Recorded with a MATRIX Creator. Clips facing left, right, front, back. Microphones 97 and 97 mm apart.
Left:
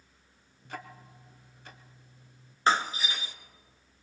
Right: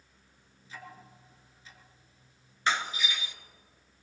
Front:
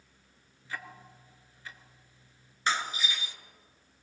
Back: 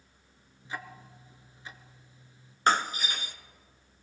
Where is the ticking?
110° left, 0.8 m.